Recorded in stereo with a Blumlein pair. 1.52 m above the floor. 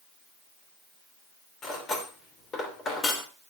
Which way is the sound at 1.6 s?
25° left.